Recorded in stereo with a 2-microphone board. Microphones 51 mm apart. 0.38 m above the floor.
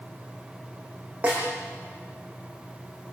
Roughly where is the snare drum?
Right.